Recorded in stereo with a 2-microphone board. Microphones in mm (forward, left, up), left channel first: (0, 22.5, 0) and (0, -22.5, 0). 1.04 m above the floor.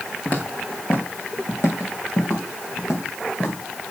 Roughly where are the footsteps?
Left.